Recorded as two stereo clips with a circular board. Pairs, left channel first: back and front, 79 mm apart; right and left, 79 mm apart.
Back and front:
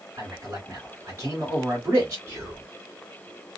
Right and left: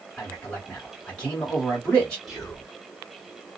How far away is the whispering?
About 1.0 m.